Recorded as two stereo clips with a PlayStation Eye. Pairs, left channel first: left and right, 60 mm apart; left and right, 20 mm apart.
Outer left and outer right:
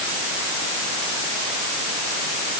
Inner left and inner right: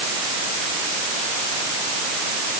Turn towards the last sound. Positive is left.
No sound to turn to.